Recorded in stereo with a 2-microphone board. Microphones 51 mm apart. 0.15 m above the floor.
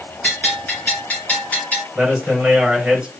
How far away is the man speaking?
About 2 m.